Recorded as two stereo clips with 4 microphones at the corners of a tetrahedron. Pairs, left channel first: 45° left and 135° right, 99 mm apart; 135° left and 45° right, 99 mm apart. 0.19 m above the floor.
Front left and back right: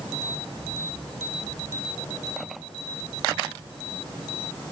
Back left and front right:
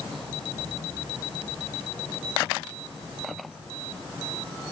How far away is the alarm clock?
No alarm clock in this recording.